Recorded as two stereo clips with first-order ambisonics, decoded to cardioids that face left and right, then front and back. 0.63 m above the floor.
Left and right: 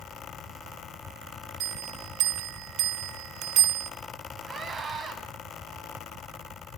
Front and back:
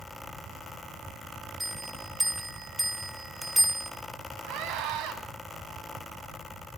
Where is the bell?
90° right, 1.0 m.